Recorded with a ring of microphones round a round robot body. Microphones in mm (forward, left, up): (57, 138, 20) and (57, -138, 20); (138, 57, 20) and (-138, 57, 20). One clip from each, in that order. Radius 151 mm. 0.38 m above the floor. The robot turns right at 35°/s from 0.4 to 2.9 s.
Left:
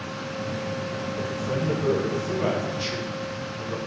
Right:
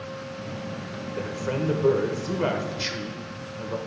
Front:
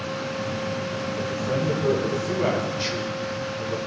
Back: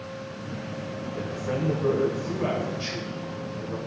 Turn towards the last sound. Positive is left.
turn(degrees=-40)